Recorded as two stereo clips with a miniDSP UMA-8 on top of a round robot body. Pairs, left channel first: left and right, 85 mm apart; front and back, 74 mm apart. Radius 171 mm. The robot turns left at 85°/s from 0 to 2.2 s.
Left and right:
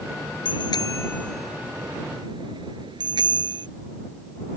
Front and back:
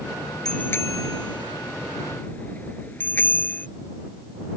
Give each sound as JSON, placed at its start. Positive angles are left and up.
{"t": 0.5, "sound": "a bicycle bell", "azimuth_deg": 80}